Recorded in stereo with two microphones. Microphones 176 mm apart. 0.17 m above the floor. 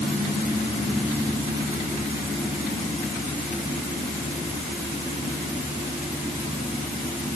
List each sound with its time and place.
Only background noise.